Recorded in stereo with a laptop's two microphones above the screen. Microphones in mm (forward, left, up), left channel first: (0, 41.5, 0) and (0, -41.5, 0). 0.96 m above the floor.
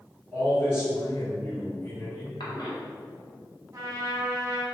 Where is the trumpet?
40° right (ahead or behind), 0.6 m.